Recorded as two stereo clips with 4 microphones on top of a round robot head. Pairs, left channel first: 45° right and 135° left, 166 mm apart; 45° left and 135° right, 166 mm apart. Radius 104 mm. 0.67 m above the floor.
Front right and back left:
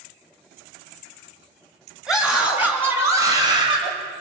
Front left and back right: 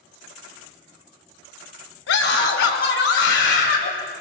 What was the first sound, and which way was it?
A scream, 45° left.